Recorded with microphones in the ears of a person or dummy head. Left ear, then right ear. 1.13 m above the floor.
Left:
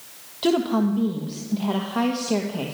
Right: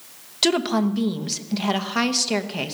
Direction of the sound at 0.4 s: 60° right (ahead or behind).